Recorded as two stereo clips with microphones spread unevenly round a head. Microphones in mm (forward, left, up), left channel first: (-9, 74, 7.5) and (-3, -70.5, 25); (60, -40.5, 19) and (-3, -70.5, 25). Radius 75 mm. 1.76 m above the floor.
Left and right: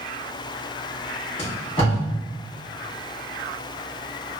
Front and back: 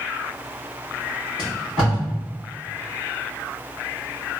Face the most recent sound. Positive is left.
turn(degrees=105)